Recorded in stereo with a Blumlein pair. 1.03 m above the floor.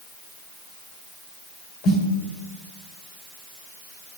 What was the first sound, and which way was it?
A snare drum, 35° left.